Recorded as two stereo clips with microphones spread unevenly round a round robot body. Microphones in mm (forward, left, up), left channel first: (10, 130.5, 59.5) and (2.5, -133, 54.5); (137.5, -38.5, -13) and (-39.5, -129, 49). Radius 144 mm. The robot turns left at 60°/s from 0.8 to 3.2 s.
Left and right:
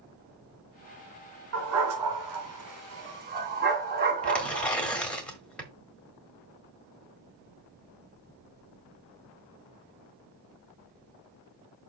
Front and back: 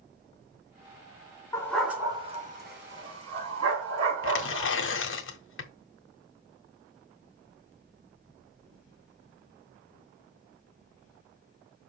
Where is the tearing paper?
5° left, 1.5 m.